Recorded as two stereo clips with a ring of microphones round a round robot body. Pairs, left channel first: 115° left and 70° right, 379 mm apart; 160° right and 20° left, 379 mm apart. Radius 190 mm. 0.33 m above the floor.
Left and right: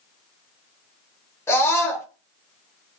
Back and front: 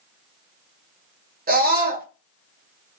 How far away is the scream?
About 1.3 m.